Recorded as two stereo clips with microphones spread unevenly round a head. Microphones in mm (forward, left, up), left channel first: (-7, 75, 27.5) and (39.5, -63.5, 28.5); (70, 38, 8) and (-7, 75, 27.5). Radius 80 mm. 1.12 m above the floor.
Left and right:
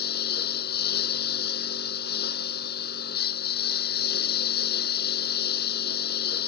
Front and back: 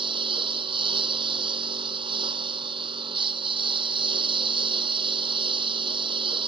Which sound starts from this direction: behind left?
A lawn mower, at 0.0 s.